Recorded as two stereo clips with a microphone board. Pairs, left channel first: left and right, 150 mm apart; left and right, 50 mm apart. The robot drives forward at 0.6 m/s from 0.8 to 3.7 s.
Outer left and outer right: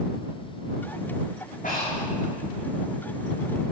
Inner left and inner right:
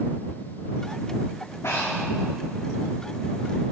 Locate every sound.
1.6 s breathing: 60° left (ahead or behind), 5 m